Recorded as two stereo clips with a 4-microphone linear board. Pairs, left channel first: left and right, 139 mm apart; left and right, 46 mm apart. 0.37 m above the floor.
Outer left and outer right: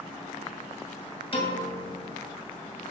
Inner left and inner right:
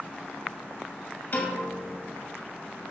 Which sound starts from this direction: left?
A piano, at 1.3 s.